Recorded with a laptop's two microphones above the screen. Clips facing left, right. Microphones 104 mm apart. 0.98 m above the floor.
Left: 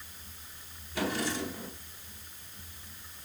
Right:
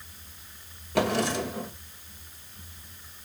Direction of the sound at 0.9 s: 75° right (ahead or behind).